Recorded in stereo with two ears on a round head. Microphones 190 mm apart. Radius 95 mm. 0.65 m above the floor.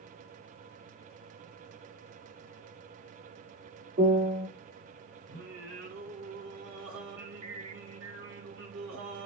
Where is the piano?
50° right (ahead or behind), 1.1 m.